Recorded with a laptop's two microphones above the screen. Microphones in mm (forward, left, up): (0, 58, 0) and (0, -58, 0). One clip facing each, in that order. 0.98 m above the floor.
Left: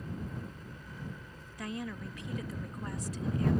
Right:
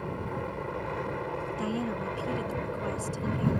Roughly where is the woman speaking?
Right.